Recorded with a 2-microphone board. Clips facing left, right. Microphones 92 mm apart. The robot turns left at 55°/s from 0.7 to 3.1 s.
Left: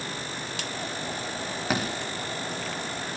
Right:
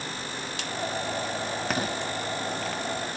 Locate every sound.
1.7 s a thud: 5° left (ahead or behind), 7 m; by 1.8 s 5° right (ahead or behind), 7 m